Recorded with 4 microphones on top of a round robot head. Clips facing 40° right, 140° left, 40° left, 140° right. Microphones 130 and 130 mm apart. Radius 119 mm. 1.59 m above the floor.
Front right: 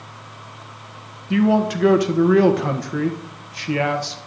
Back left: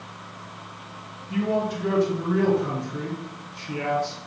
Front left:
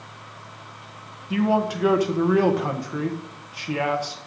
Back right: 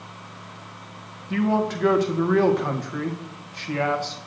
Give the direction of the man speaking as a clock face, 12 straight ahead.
1 o'clock.